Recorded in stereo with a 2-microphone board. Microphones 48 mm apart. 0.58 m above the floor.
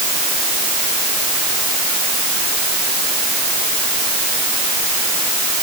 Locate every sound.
Only background noise.